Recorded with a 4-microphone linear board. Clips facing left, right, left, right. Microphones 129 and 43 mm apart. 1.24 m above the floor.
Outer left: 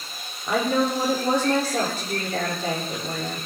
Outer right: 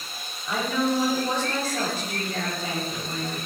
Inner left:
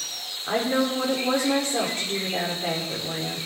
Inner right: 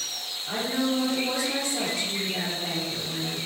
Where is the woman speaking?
55° left (ahead or behind), 4 m.